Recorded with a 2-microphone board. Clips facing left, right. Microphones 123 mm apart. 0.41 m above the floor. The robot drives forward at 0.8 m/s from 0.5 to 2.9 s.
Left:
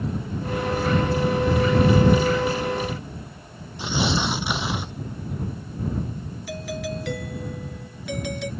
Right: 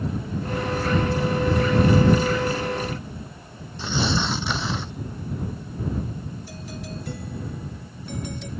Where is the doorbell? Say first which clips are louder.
Left 6 dB; 80° left.